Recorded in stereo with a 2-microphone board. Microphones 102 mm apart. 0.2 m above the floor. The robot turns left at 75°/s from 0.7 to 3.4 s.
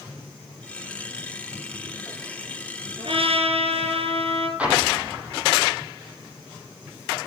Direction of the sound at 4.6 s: 10° right (ahead or behind).